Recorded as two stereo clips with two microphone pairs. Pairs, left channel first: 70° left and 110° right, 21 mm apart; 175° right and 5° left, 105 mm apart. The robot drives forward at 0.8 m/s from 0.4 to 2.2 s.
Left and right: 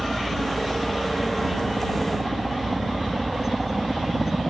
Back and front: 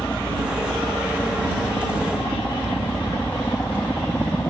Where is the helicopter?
125° right; by 4.5 s 140° right.